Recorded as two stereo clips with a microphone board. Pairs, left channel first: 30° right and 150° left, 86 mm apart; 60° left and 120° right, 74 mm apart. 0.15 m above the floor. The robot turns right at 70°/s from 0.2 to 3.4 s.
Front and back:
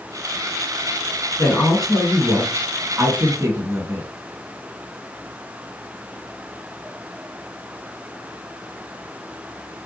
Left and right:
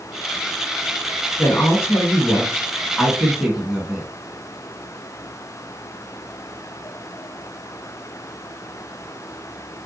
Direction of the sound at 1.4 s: 25° left.